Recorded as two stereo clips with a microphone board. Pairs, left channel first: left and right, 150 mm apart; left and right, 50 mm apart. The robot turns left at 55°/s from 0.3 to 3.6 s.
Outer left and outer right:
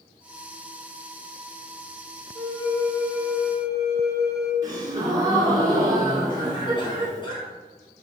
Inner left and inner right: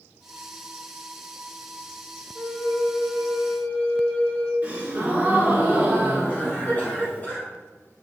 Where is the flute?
5° left (ahead or behind), 0.8 m; by 4.5 s 25° left (ahead or behind), 0.8 m.